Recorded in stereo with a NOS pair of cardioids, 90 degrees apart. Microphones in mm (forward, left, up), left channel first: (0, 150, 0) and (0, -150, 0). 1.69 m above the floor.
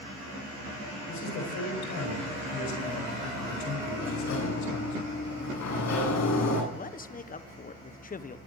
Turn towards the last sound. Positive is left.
turn(degrees=25)